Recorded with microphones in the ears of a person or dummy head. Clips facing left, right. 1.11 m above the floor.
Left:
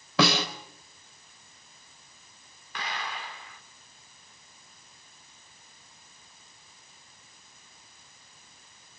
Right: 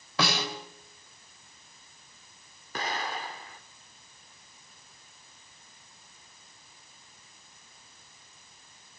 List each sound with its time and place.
0.2 s a snare drum: 60° left (ahead or behind), 3.5 m
2.8 s an explosion: 30° right (ahead or behind), 1.5 m